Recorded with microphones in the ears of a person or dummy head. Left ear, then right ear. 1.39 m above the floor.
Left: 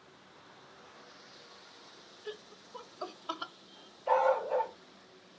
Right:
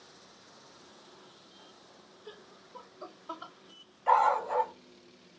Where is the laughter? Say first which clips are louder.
Left 6 dB; 20° left (ahead or behind), 0.7 m; by 3.5 s 45° left (ahead or behind), 0.6 m.